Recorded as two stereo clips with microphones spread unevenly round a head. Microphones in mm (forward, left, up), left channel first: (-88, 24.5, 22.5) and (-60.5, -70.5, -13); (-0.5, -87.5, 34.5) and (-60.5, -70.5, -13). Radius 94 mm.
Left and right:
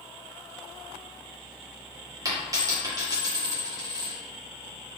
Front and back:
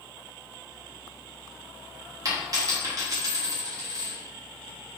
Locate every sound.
2.2 s a dropped coin: 130° right, 1.4 m